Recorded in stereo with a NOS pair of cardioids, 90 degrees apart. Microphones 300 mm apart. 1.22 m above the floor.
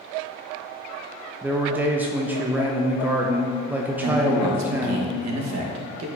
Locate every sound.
1.4 s a man speaking: 5° right, 0.5 m
4.0 s a man speaking: 65° right, 1.3 m